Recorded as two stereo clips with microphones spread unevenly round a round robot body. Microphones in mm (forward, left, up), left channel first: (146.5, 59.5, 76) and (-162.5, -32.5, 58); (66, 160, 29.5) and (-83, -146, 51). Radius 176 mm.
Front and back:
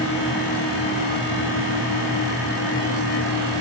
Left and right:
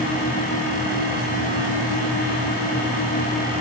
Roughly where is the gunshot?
No gunshot in this recording.